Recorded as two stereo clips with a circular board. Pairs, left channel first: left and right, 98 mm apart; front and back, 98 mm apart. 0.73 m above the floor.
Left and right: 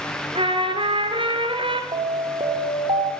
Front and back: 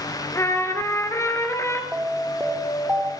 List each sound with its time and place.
0.3 s a trumpet: 60° right, 3 m
1.9 s an alarm: 105° right, 3 m